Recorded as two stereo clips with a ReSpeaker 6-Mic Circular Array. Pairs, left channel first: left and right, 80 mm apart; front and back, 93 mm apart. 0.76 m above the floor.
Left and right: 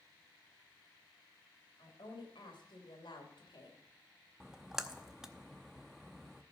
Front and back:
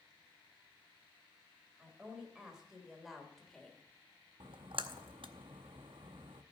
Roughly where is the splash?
Behind.